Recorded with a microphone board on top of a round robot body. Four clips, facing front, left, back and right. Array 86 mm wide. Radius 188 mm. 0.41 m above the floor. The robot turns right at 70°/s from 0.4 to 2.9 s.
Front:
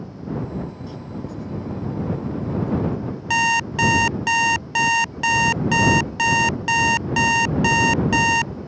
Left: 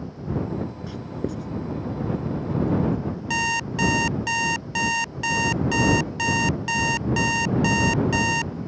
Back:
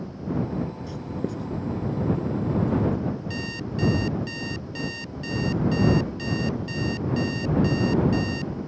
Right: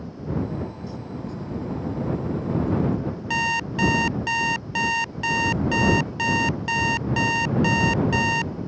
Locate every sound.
0.9 s writing: 95° left; by 1.5 s 140° left
3.3 s an alarm clock: 5° right